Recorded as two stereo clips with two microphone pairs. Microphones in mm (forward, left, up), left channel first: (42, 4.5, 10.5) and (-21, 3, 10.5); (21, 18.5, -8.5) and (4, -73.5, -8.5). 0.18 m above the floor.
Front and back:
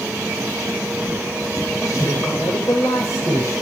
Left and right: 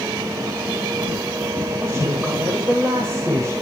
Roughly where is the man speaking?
Ahead right.